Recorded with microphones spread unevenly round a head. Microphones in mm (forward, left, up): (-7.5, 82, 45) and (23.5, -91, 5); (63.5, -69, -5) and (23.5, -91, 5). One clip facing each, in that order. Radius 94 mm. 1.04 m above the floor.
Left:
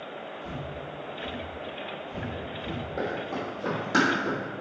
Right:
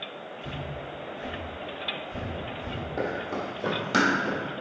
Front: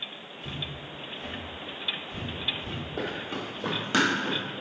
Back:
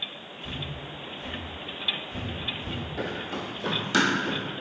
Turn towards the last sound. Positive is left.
turn(degrees=-30)